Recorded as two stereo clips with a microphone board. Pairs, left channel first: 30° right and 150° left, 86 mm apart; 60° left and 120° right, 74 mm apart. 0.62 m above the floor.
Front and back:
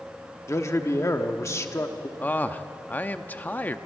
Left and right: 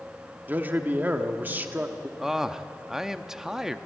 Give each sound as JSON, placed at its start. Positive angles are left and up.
{"t": 0.5, "sound": "a man speaking", "azimuth_deg": -70, "distance_m": 1.2}
{"t": 2.2, "sound": "a man speaking", "azimuth_deg": -50, "distance_m": 0.6}